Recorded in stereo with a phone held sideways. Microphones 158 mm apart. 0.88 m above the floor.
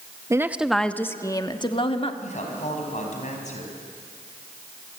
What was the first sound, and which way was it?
A woman speaking, 20° right (ahead or behind).